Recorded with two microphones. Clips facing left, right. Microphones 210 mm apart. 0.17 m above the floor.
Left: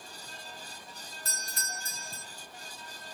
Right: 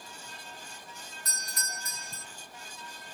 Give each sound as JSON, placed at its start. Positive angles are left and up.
{"t": 1.2, "sound": "a doorbell", "side_deg": 30, "distance_m": 1.9}